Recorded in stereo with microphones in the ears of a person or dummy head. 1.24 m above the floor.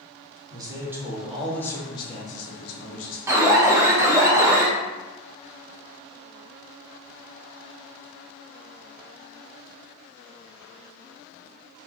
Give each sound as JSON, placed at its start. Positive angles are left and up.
{"t": 0.5, "sound": "a man speaking", "side_deg": -20, "distance_m": 1.1}
{"t": 3.3, "sound": "an alarm", "side_deg": -15, "distance_m": 0.6}